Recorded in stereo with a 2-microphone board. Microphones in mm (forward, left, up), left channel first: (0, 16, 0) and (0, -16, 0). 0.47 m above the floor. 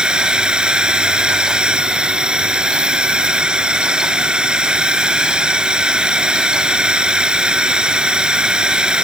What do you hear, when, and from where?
0.0 s a drone: 30° right (ahead or behind)